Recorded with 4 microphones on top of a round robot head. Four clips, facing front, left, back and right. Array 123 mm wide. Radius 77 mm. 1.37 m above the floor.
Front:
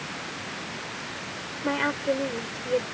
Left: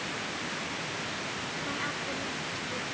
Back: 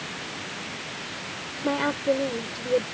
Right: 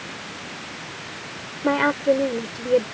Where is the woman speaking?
100° right.